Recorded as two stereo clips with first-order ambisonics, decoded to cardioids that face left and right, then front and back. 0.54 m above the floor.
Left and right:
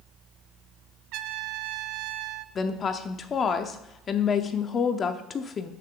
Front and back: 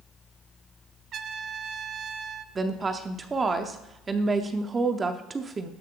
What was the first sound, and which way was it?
A trumpet, 120° right.